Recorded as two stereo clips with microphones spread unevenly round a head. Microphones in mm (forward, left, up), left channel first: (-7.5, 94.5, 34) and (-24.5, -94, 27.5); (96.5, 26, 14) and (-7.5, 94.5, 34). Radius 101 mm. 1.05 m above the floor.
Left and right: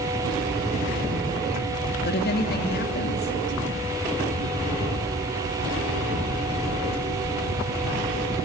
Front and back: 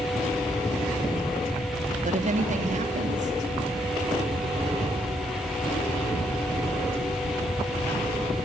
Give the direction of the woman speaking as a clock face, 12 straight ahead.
8 o'clock.